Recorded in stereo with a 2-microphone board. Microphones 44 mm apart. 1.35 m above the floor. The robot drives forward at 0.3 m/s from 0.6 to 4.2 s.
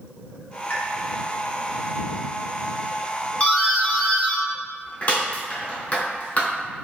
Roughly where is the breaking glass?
I don't hear breaking glass.